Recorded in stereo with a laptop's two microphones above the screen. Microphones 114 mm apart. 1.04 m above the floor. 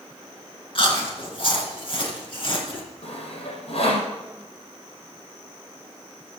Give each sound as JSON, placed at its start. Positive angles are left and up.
{"t": 0.8, "sound": "chewing", "side_deg": 50, "distance_m": 3.0}
{"t": 3.0, "sound": "sawing", "side_deg": 60, "distance_m": 5.0}